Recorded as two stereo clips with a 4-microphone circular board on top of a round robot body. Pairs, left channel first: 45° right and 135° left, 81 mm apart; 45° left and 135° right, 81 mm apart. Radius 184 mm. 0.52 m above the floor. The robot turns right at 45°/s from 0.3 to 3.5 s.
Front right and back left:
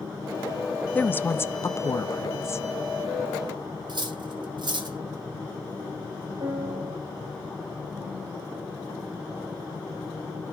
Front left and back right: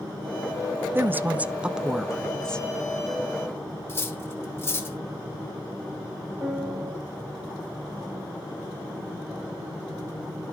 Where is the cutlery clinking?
105° left, 1.1 m.